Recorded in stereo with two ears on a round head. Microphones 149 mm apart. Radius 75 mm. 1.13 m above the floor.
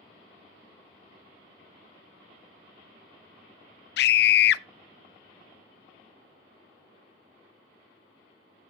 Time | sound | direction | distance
4.0 | a scream | 70° left (ahead or behind) | 0.6 m